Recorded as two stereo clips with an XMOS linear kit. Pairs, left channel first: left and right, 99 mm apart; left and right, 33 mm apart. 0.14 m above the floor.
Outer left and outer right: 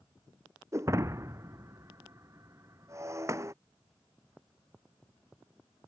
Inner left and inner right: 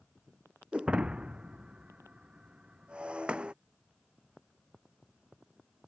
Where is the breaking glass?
30° right (ahead or behind).